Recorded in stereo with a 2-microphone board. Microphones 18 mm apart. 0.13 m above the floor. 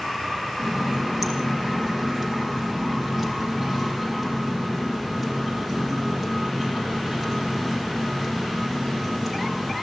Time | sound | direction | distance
0.6 | a running tap | 15° right (ahead or behind) | 3.5 m